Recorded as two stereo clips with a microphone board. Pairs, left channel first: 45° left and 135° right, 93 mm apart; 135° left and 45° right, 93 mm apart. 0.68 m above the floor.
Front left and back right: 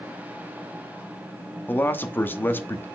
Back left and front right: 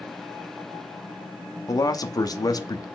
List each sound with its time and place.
1.7 s a man speaking: 105° left, 0.8 m